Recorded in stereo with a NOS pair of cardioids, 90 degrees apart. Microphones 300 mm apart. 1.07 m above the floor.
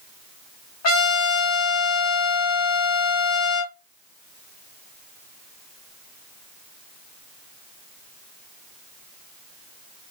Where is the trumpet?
60° left, 1.5 m.